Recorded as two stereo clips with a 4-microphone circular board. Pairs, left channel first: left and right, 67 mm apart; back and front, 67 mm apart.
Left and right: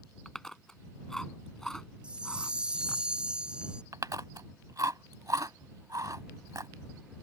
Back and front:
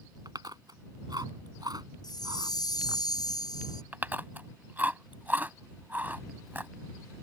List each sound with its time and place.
0.2 s chewing: 5° left
2.0 s a chime: 165° right
3.9 s chewing: 60° right